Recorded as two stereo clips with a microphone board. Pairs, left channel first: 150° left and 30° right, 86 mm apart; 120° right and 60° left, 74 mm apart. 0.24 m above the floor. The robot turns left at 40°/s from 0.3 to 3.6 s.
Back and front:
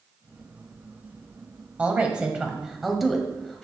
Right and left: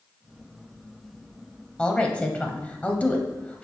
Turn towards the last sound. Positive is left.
turn(degrees=-145)